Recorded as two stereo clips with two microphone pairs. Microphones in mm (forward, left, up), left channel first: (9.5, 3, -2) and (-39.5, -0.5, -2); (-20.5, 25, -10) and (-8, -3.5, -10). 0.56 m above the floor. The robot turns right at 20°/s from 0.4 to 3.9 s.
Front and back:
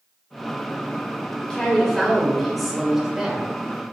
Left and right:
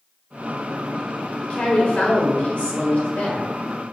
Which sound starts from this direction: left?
A woman speaking, at 1.4 s.